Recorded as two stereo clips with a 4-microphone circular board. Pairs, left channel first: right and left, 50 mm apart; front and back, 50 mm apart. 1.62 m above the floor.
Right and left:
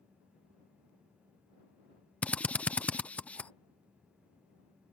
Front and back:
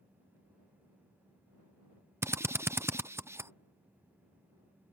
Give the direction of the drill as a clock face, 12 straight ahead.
5 o'clock.